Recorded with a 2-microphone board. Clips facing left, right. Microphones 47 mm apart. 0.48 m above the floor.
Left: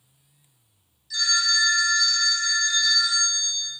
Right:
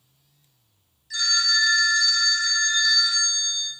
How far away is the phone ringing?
About 0.6 m.